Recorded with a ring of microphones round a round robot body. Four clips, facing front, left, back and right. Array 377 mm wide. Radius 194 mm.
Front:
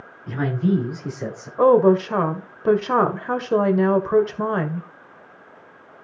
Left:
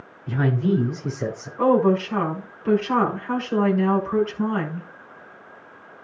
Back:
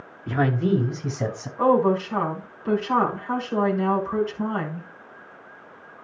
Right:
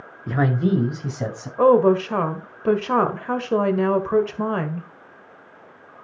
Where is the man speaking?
120° right, 2 m; by 1.5 s 135° right, 4 m.